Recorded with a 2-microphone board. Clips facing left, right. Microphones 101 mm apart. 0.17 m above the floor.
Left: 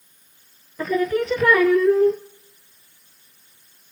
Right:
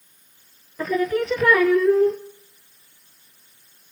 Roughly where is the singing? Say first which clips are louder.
Left 1 dB; centre.